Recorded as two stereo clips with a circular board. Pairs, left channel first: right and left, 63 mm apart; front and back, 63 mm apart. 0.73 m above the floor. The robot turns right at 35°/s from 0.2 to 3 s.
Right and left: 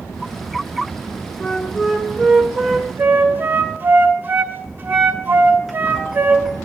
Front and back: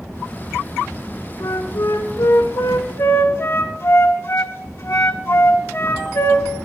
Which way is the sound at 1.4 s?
20° right.